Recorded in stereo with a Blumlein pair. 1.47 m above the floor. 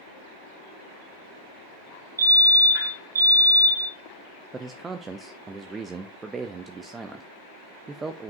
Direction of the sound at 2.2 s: 70° right.